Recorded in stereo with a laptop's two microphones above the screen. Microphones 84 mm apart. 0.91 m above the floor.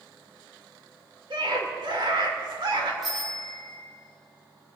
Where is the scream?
70° right (ahead or behind), 2.5 m.